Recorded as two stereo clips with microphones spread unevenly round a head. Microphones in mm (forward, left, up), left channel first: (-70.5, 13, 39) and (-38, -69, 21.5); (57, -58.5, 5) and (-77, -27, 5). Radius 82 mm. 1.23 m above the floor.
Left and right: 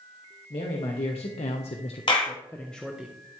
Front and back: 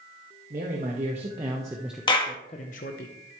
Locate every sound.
0.5 s a man speaking: 120° left, 1.8 m; by 3.1 s 10° left, 1.1 m
2.1 s a clap: 55° left, 1.5 m